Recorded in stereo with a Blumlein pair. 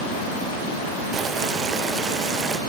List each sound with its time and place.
1.1 s boiling: 20° right, 0.7 m